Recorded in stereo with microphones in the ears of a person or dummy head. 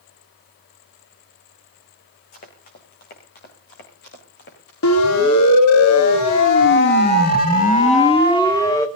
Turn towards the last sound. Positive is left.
turn(degrees=15)  # may be behind; listen again after turning